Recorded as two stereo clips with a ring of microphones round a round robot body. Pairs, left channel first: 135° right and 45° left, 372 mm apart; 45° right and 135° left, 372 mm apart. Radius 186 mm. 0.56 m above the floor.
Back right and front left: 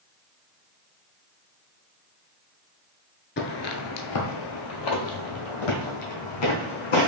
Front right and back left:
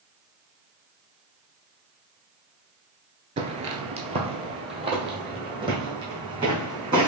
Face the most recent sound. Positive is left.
turn(degrees=-145)